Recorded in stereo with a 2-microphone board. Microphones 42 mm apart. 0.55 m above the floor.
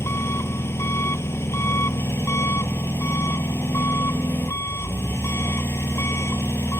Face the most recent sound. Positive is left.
turn(degrees=90)